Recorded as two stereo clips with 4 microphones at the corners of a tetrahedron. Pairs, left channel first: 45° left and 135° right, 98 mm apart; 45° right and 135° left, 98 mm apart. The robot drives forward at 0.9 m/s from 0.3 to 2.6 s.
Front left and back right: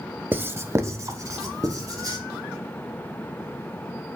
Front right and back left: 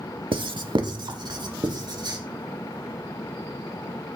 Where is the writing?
155° left, 0.6 m; by 2.2 s 175° left, 2 m.